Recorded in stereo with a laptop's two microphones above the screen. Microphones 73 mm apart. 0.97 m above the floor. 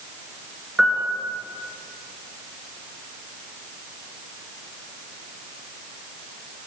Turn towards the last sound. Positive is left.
turn(degrees=-5)  # may be behind; listen again after turning